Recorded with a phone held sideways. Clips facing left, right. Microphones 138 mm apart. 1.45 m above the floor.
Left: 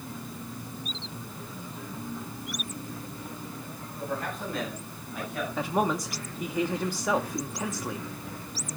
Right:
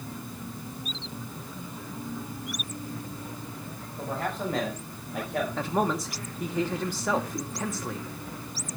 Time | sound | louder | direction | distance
4.0 | a man speaking | right 2 dB | 85° right | 7 m
5.6 | a man speaking | left 2 dB | centre (ahead or behind) | 0.9 m